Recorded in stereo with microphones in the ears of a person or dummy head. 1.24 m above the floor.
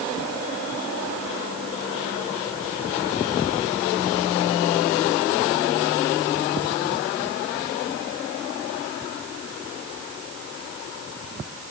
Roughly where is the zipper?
No zipper in this recording.